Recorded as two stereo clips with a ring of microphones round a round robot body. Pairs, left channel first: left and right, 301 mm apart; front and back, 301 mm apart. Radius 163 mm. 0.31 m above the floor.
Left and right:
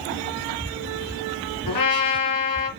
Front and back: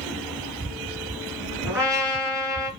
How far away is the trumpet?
About 2.5 m.